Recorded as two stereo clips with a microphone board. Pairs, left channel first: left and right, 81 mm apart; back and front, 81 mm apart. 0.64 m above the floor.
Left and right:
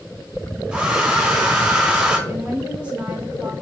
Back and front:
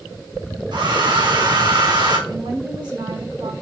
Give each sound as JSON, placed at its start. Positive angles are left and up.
{"t": 0.7, "sound": "a hair dryer", "azimuth_deg": -10, "distance_m": 2.5}
{"t": 2.3, "sound": "a woman speaking", "azimuth_deg": -15, "distance_m": 3.5}